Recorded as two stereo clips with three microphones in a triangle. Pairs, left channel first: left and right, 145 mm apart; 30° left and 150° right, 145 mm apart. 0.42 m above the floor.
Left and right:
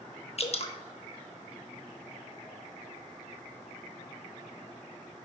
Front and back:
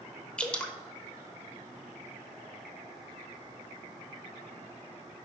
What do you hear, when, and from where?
0.4 s dripping: 110° left, 0.6 m